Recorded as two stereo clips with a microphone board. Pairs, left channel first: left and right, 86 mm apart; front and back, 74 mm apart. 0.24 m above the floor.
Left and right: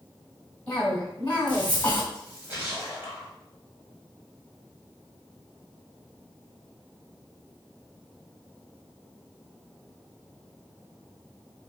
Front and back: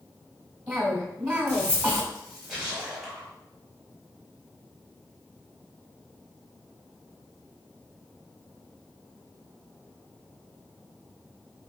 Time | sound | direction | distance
0.7 | a cough | 150° left | 1.0 m
2.1 | a splash | 95° right | 1.3 m